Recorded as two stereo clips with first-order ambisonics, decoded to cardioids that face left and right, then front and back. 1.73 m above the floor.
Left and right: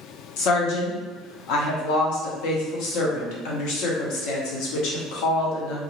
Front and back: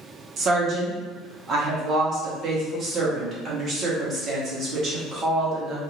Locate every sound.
0.4 s a woman speaking: 120° left, 0.8 m